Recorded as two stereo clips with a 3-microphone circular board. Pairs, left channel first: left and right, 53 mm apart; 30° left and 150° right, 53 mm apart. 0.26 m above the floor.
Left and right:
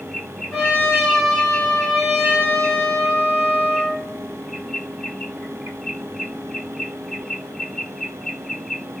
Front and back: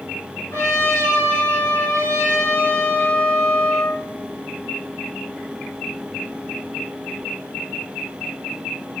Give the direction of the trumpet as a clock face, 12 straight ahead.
12 o'clock.